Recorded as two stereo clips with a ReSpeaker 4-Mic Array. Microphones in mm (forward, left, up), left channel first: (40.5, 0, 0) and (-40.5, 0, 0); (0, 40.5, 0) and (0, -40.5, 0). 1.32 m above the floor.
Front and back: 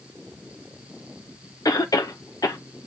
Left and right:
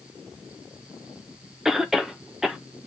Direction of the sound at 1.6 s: 5° right.